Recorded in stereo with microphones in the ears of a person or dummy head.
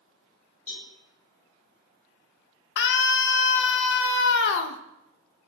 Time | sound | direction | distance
0.7 | a cowbell | 40° left (ahead or behind) | 5.5 m
2.8 | a scream | 70° left (ahead or behind) | 1.0 m